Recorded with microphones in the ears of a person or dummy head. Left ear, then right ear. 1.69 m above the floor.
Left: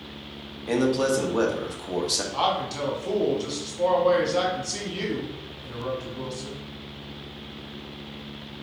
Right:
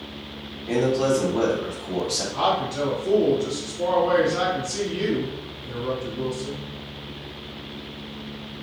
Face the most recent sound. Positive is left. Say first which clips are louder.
# right 5 dB
turn(degrees=30)  # may be behind; listen again after turning